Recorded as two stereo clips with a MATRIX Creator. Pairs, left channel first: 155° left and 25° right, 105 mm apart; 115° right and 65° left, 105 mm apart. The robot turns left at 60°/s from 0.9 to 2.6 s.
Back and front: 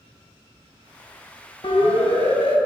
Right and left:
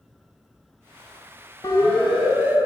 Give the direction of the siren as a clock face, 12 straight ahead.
5 o'clock.